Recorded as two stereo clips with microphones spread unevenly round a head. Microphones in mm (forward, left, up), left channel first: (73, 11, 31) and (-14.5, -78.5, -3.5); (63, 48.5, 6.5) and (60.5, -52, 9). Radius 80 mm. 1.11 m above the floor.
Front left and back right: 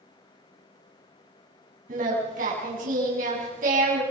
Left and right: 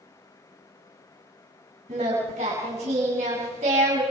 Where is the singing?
135° right, 7.5 m.